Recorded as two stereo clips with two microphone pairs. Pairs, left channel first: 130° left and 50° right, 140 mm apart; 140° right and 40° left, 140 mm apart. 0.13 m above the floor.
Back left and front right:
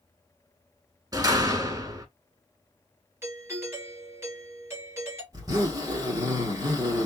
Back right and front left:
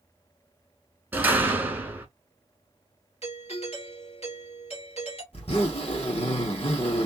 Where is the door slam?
20° right, 0.9 m.